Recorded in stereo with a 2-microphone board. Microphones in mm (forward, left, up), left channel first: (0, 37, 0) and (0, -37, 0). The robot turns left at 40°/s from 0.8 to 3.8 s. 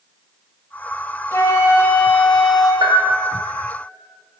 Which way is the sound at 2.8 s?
80° right.